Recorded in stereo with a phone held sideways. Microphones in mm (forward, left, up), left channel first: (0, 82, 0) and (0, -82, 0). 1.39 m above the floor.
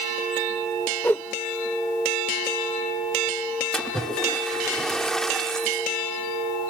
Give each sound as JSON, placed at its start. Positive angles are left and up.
{"t": 1.0, "sound": "a whoosh", "side_deg": 15}
{"t": 3.7, "sound": "a splash", "side_deg": 5}